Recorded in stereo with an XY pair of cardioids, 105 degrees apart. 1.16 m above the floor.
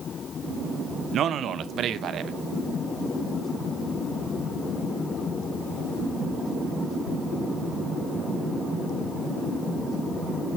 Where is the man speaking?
60° right, 0.7 m.